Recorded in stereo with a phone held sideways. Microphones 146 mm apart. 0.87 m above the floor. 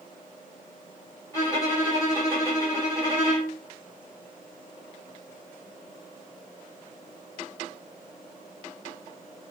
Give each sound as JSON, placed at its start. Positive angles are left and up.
{"t": 1.3, "sound": "a violin", "side_deg": 20, "distance_m": 1.5}